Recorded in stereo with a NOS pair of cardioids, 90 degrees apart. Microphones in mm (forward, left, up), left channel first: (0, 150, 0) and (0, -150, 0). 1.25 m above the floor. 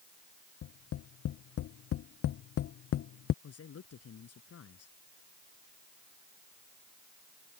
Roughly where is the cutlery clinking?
No cutlery clinking in this recording.